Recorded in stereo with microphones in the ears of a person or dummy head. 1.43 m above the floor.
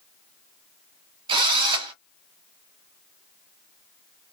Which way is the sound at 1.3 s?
25° right (ahead or behind).